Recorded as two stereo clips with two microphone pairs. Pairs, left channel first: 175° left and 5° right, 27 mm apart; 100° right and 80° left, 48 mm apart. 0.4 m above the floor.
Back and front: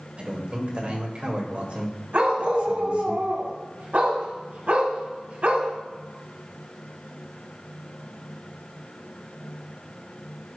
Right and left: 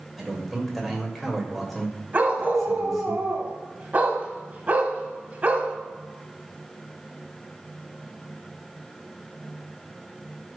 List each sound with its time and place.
0.2 s a man speaking: 10° right, 2 m
2.1 s a dog barking: 25° left, 1.2 m